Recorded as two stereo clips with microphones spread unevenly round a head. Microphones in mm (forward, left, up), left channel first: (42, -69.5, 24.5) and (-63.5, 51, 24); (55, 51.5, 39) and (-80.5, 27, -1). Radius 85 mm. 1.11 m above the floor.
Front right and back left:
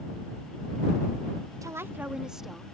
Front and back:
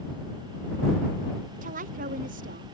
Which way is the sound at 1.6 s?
160° right.